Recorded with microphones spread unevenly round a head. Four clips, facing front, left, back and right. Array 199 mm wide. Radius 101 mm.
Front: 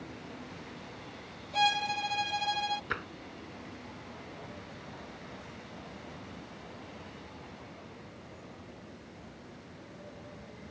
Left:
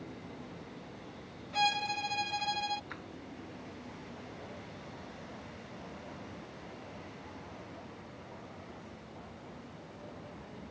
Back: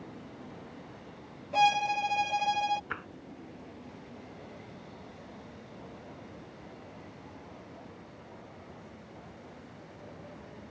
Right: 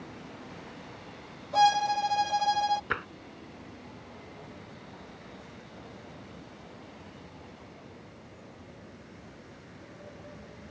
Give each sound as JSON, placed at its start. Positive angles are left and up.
{"t": 1.5, "sound": "a violin", "azimuth_deg": -135}
{"t": 2.9, "sound": "tapping", "azimuth_deg": -75}